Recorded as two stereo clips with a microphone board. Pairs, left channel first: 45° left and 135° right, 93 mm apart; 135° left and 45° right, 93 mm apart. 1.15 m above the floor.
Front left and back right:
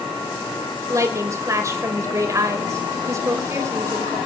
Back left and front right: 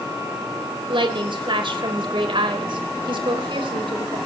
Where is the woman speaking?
75° right, 4.5 m.